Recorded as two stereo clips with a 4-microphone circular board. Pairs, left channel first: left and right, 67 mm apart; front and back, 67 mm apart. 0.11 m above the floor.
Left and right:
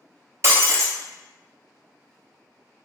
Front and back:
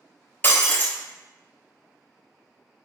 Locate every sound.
0.4 s breaking glass: 55° right, 0.7 m